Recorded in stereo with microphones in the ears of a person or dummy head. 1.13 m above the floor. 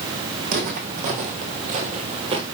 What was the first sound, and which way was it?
Footsteps, 45° right (ahead or behind).